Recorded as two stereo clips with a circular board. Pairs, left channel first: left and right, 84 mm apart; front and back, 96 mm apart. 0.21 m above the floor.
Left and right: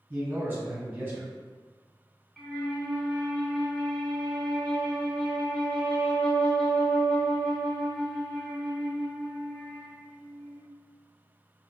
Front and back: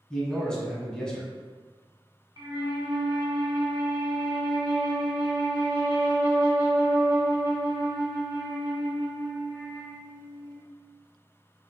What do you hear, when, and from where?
0.1 s a man speaking: 70° right, 1.1 m
2.4 s a flute: 165° left, 0.9 m